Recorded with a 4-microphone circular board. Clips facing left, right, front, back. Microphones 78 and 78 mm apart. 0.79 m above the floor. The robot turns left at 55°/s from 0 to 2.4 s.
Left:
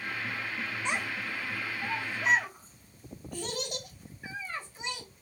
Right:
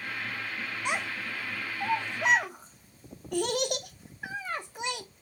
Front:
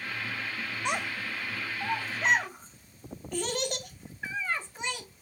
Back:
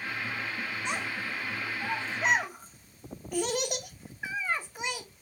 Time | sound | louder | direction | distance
0.8 | a child speaking | right 2 dB, front 4 dB | 15° right | 0.9 m